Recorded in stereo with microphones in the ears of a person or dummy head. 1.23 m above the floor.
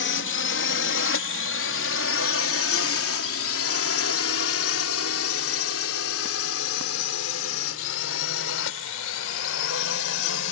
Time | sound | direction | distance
0.0 | a drone | 55° left (ahead or behind) | ?